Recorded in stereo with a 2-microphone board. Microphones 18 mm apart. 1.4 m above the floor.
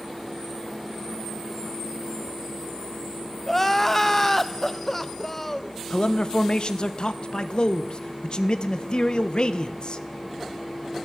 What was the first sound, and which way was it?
Crying, 15° left (ahead or behind).